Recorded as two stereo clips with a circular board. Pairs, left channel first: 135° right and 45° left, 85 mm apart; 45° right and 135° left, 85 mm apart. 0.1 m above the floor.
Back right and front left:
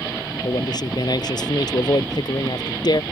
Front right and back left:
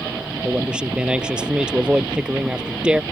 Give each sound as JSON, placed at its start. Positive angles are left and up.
{"t": 0.4, "sound": "a man speaking", "azimuth_deg": -145}